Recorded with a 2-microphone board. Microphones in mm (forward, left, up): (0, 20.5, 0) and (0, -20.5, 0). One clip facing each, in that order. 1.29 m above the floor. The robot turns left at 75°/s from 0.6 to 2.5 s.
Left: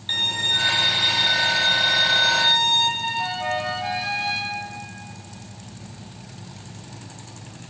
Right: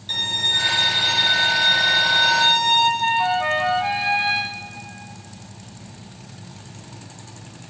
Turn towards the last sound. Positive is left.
turn(degrees=-25)  # may be behind; listen again after turning